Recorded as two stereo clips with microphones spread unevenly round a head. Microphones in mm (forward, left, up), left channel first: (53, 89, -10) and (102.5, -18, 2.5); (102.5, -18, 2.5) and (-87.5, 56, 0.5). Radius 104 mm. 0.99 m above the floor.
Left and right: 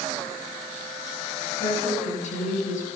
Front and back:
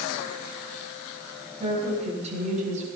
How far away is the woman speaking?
About 7.5 m.